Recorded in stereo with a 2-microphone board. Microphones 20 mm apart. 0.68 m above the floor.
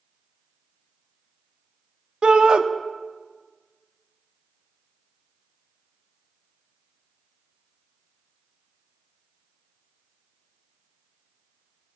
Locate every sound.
2.2 s a shout: 50° right (ahead or behind), 0.7 m